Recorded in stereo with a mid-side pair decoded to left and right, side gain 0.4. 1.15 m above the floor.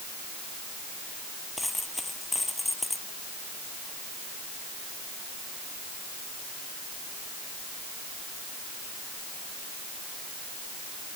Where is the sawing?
I don't hear sawing.